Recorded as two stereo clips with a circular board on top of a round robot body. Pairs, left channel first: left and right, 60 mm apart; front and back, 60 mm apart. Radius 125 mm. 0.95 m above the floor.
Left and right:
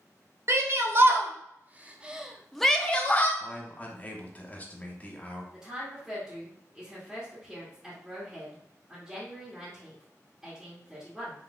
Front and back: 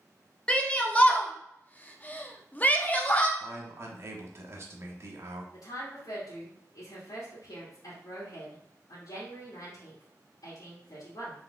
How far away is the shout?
About 1.4 m.